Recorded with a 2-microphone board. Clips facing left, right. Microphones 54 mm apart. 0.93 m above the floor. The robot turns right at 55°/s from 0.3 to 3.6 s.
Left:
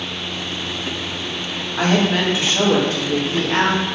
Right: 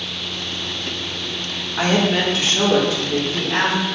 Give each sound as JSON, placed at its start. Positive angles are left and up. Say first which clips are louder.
{"t": 1.8, "sound": "a woman speaking", "louder": "even", "azimuth_deg": -10, "distance_m": 1.3}